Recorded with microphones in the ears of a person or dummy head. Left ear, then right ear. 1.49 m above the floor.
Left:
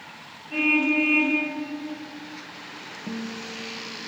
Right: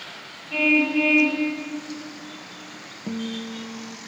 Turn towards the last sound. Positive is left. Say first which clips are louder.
# right 4 dB
turn(degrees=-40)  # may be behind; listen again after turning